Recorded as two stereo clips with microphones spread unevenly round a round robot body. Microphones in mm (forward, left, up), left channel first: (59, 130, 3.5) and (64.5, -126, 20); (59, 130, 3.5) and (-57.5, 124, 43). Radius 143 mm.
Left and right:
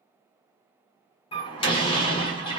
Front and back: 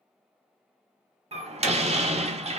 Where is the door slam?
150° left, 0.9 m.